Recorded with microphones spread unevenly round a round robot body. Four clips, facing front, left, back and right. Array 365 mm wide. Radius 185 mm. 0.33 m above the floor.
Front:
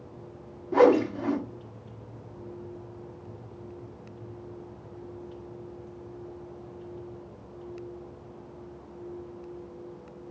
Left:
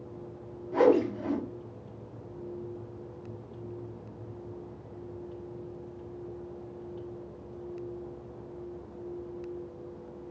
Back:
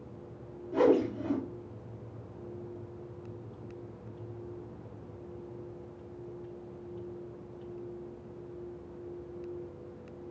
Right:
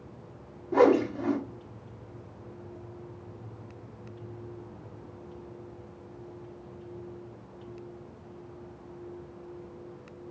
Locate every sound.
0.7 s a whoosh: 40° right, 1.3 m